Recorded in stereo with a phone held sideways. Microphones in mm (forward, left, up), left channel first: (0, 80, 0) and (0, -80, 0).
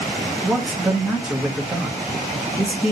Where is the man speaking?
5° right (ahead or behind), 1.4 m.